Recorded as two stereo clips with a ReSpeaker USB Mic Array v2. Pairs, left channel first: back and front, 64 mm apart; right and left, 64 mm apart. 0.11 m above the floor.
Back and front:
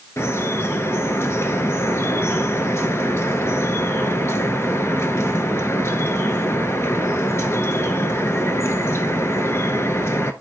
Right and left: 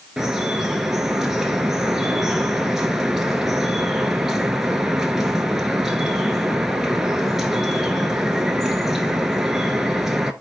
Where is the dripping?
170° left, 0.8 m.